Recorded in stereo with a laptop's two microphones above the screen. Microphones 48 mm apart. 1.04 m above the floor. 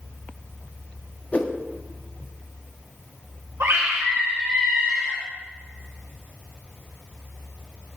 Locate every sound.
1.3 s a whoosh: 30° left (ahead or behind), 1.1 m
3.6 s a scream: 80° right, 1.2 m